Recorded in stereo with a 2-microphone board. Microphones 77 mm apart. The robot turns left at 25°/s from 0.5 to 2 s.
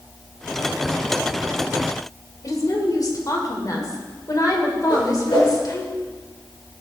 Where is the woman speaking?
50° left (ahead or behind), 2 m.